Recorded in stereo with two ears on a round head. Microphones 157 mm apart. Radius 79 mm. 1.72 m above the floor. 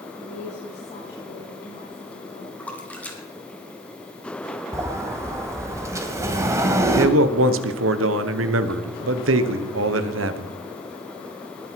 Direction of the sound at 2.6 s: 10° left (ahead or behind).